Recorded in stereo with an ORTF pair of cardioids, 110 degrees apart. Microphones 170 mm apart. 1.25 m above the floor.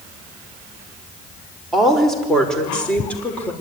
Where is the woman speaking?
Straight ahead, 5 m; by 3.5 s 10° left, 5 m.